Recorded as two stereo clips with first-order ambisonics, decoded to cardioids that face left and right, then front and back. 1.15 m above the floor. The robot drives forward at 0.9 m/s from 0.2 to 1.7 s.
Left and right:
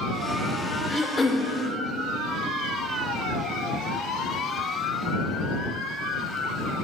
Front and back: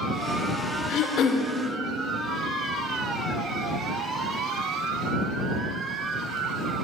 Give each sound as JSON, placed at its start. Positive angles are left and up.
{"t": 0.9, "sound": "throat clearing", "azimuth_deg": 10, "distance_m": 0.8}